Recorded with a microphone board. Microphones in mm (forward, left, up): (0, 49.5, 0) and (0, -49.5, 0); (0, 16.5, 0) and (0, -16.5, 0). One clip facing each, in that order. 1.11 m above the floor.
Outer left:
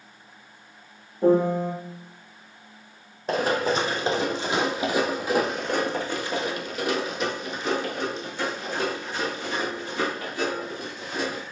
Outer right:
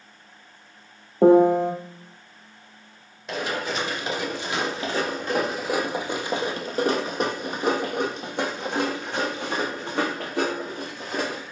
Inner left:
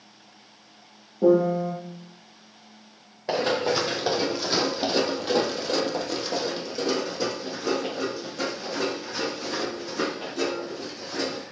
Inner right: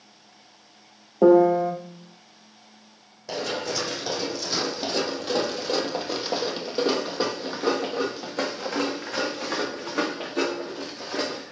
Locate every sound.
1.2 s a piano: 75° right (ahead or behind), 1.0 m
3.3 s running footsteps: 45° left (ahead or behind), 2.5 m; by 11.4 s 75° right (ahead or behind), 4.5 m